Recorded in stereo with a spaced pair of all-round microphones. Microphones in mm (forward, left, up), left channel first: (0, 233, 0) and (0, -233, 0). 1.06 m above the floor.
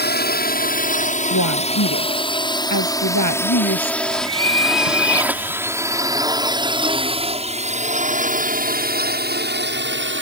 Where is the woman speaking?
40° left (ahead or behind).